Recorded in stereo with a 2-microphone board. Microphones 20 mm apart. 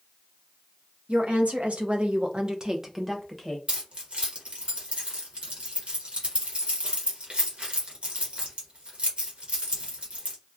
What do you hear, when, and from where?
1.1 s a woman speaking: 75° right (ahead or behind), 0.9 m; by 3.6 s centre (ahead or behind), 0.8 m
3.7 s keys jangling: 60° right (ahead or behind), 1.1 m